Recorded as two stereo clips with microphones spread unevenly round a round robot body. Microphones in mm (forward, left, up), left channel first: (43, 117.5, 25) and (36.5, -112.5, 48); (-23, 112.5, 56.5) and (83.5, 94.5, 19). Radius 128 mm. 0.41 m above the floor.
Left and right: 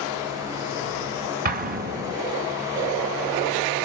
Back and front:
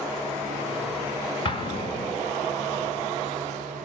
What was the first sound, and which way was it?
An explosion, 135° right.